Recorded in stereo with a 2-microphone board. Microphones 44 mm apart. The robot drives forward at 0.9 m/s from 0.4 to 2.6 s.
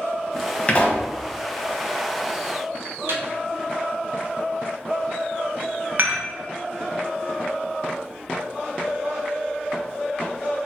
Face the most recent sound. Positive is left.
turn(degrees=-45)  # may be behind; listen again after turning